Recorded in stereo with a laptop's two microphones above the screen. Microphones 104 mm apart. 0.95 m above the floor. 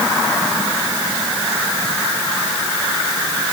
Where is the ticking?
I don't hear ticking.